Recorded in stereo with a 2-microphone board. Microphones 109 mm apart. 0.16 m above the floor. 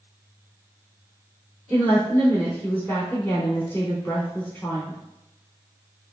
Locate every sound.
1.7 s a woman speaking: 20° left (ahead or behind), 1.1 m